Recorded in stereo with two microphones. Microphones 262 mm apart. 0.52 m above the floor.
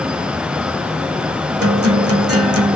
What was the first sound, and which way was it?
A guitar, 60° right (ahead or behind).